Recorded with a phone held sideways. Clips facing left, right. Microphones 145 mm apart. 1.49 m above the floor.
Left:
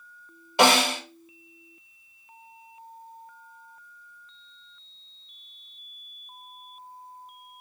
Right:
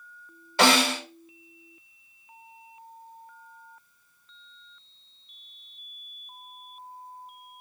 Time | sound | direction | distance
0.6 | a snare drum | 20° left (ahead or behind) | 1.7 m